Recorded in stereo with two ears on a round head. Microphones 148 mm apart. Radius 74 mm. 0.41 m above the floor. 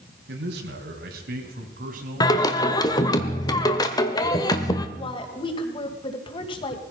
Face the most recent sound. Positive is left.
turn(degrees=30)  # may be behind; listen again after turning